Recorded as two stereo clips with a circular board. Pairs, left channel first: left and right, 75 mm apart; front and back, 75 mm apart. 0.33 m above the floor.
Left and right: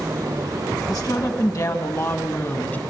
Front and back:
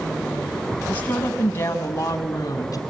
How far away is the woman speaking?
About 2.5 m.